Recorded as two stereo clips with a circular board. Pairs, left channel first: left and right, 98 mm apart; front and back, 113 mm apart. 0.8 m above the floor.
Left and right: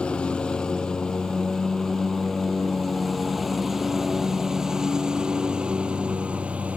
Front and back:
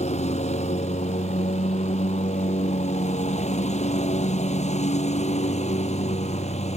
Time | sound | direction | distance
0.0 | a lawn mower | 10° left | ?